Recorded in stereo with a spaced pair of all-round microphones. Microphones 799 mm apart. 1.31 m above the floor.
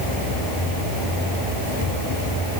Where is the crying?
I don't hear crying.